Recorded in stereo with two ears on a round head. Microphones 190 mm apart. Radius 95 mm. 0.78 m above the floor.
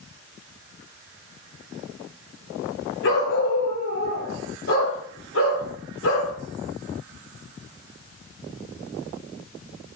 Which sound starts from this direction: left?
A dog barking, at 3.0 s.